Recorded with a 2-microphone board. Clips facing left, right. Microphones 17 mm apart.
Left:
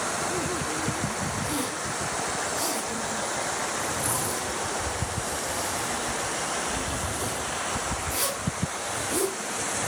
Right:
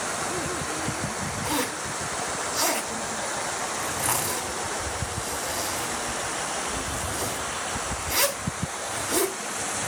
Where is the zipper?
75° right (ahead or behind), 3.5 m.